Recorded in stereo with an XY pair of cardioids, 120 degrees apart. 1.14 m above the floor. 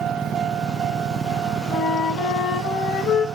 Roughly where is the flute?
Ahead left.